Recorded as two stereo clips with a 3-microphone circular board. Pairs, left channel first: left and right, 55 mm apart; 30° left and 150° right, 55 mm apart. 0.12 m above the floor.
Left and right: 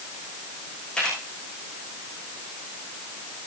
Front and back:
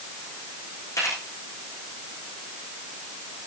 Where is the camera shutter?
15° left, 7.5 m.